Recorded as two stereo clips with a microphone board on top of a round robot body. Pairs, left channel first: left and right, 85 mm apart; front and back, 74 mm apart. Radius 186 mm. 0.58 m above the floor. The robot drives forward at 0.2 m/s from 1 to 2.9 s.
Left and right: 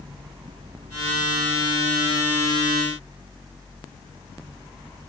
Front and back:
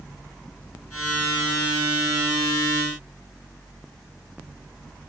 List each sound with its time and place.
Only background noise.